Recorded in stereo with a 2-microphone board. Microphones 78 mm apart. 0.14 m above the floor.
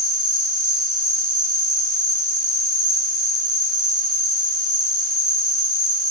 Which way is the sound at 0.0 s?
50° right (ahead or behind).